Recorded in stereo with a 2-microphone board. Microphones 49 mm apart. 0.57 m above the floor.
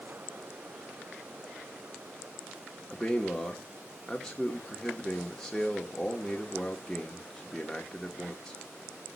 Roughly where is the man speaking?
Centre.